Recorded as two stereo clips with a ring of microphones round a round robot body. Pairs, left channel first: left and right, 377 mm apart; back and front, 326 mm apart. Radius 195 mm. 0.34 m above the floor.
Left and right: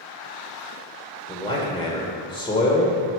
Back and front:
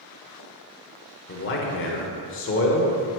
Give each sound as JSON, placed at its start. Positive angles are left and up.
{"t": 1.3, "sound": "a man speaking", "azimuth_deg": 160, "distance_m": 1.1}